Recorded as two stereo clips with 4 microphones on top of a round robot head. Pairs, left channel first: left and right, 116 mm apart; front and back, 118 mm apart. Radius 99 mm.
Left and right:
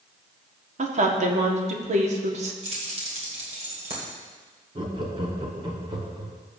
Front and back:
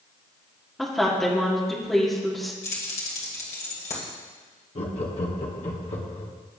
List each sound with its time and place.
0.8 s a woman speaking: 90° right, 1.6 m
2.6 s keys jangling: 45° right, 2 m
4.8 s laughter: 35° right, 1.3 m